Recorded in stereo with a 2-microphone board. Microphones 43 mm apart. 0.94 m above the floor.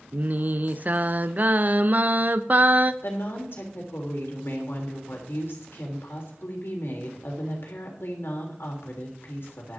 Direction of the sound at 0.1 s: 40° right (ahead or behind).